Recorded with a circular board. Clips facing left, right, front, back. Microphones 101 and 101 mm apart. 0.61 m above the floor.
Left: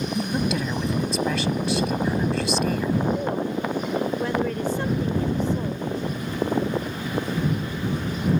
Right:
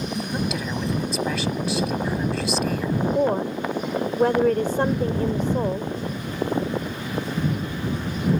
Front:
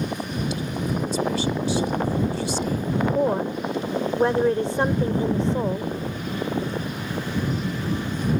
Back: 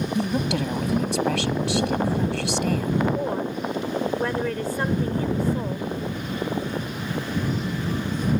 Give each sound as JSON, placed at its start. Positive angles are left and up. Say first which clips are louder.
{"t": 0.1, "sound": "a woman speaking", "louder": "left 3 dB, back 4 dB", "azimuth_deg": 180}
{"t": 3.1, "sound": "a woman speaking", "louder": "right 4 dB, front 4 dB", "azimuth_deg": -60}